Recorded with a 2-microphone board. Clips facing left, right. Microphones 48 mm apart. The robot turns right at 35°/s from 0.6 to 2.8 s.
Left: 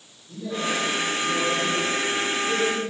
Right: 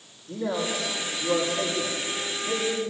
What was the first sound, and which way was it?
A man speaking, 75° right (ahead or behind).